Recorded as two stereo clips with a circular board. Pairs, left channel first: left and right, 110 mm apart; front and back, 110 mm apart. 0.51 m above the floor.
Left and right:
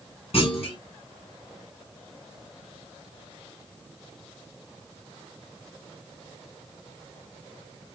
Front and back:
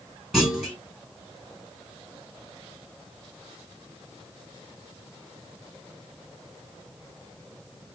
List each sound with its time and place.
0.3 s a clunk: 90° left, 2.5 m